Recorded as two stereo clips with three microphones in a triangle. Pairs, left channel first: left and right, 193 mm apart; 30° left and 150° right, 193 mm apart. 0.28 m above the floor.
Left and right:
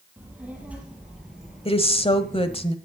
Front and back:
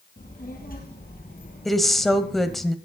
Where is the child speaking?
10° right, 4.5 m; by 2.6 s 5° left, 2.5 m.